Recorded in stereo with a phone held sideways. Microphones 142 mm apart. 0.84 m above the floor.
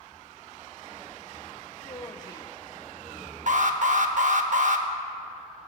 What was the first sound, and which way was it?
A woman speaking, 30° left (ahead or behind).